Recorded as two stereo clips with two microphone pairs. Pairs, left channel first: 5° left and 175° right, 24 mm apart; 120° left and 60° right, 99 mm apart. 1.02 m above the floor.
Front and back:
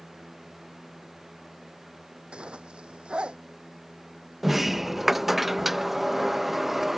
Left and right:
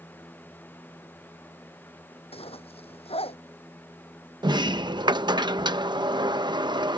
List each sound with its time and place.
2.3 s a zipper: 140° left
4.4 s a sliding door: 100° right